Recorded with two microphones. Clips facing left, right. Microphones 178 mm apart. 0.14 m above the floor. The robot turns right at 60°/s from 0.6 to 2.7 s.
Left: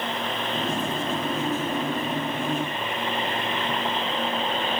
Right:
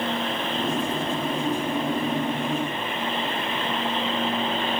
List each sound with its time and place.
Only background noise.